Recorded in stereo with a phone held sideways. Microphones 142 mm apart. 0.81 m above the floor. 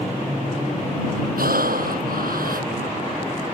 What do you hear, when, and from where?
1.4 s breathing: 85° right